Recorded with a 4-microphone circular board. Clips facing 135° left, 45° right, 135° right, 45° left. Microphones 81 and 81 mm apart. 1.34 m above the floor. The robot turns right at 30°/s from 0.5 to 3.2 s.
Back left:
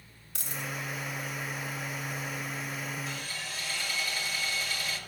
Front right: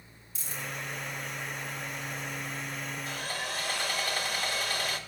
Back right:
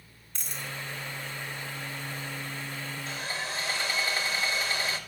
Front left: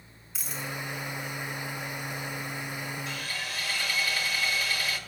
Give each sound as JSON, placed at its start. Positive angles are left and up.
{"t": 0.3, "sound": "a dropped coin", "azimuth_deg": 130, "distance_m": 3.5}
{"t": 3.1, "sound": "sawing", "azimuth_deg": -80, "distance_m": 1.6}